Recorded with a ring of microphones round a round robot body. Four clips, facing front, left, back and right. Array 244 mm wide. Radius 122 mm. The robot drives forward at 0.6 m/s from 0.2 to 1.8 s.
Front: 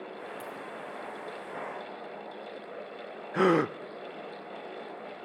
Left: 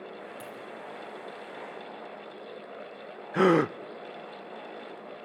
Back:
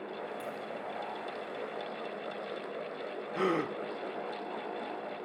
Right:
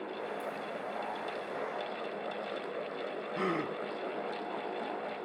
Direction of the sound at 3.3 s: 60° left.